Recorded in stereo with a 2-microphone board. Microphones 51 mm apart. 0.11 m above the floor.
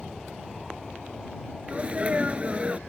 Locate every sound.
0.0 s an aircraft: 5° right (ahead or behind); by 2.9 s 10° left (ahead or behind)
1.7 s a sneeze: 25° right (ahead or behind)